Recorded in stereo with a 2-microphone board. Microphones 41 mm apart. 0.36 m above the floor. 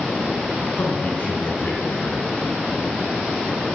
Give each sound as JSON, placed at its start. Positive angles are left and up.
{"t": 0.8, "sound": "a man speaking", "side_deg": 50, "distance_m": 5.5}